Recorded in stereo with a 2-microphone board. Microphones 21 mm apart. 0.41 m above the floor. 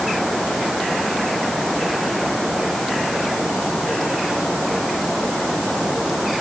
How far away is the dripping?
I don't hear dripping.